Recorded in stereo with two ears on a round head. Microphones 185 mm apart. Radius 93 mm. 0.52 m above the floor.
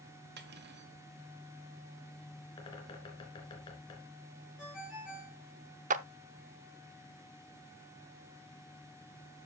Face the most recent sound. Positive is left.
turn(degrees=-40)  # may be behind; listen again after turning